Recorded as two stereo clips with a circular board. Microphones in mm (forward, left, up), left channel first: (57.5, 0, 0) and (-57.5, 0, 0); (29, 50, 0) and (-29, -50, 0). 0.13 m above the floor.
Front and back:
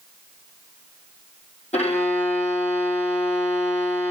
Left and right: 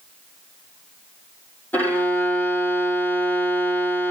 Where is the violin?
15° right, 1.7 m.